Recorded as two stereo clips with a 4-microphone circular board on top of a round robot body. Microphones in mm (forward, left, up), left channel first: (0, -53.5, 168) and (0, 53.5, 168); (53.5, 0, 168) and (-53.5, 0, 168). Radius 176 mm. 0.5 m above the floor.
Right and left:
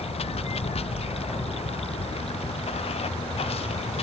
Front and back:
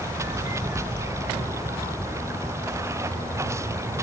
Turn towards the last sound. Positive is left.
turn(degrees=-115)